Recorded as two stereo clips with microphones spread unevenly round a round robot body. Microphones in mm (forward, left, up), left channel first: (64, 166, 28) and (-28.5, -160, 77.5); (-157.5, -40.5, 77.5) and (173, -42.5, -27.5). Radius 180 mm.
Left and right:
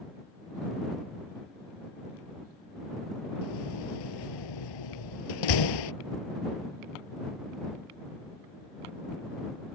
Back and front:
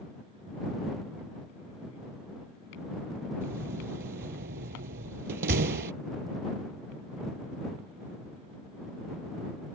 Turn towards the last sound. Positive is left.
turn(degrees=65)